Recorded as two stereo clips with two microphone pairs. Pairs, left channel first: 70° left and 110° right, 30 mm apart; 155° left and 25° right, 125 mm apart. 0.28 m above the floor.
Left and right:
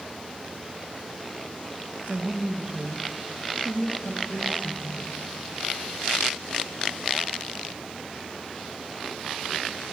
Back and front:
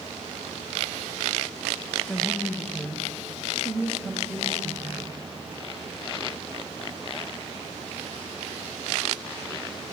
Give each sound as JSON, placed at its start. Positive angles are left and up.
{"t": 2.1, "sound": "a woman speaking", "azimuth_deg": -125, "distance_m": 1.7}